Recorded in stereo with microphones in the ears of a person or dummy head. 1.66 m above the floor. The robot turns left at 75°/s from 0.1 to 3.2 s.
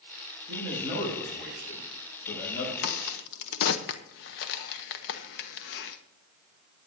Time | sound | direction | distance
0.5 | a man speaking | 110° right | 6.5 m
2.8 | a crack | 50° left (ahead or behind) | 0.8 m